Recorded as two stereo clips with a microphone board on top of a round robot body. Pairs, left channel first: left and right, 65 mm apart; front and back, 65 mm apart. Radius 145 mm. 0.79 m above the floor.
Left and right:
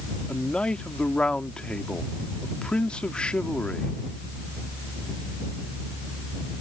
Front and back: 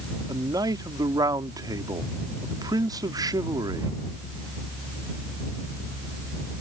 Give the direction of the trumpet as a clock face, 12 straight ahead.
No trumpet in this recording.